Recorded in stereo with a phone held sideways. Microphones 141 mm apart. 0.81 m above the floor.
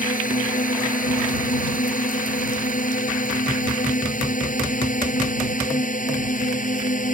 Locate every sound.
0.0 s a drone: 75° left (ahead or behind); by 7.2 s 70° left (ahead or behind)